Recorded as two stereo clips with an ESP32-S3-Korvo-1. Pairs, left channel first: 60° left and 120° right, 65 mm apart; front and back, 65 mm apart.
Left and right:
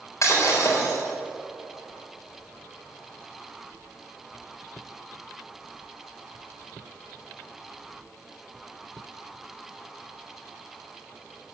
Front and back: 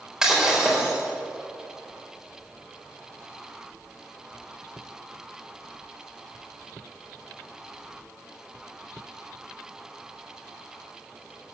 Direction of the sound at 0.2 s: 100° left.